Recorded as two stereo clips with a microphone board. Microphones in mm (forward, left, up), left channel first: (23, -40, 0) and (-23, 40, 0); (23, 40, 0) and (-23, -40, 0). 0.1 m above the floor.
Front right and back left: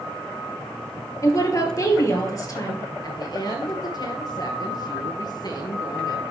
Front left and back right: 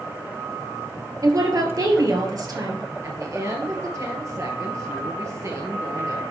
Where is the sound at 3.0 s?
80° right, 2 m.